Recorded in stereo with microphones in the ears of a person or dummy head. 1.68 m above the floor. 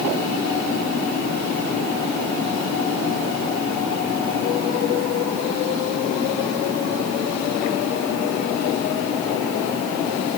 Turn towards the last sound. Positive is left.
No sound to turn to.